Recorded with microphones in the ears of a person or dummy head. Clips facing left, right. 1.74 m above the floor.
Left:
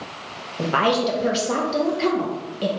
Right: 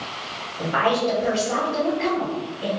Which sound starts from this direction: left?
A woman speaking, at 0.6 s.